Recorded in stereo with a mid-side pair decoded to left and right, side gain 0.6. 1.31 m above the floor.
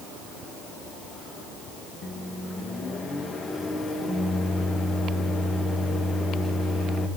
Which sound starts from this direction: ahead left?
A microwave, at 2.0 s.